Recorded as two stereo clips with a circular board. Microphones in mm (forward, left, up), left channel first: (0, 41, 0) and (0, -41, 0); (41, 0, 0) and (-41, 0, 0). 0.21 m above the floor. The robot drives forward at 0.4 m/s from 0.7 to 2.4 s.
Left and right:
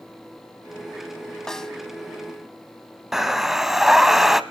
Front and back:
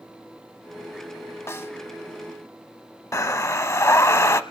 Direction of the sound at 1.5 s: 10° left.